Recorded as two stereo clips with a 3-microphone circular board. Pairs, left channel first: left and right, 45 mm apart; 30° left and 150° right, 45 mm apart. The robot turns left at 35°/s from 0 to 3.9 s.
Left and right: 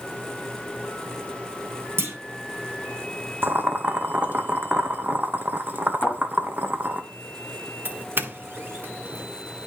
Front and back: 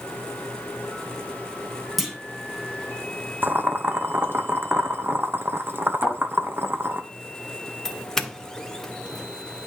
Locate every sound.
2.0 s a clunk: 65° right, 3 m; by 2.1 s 70° right, 3 m
3.4 s boiling: 115° right, 1.1 m; by 7.0 s 130° right, 1.1 m
6.0 s a thud: 150° left, 7.5 m
7.8 s a doorbell: 50° right, 1.3 m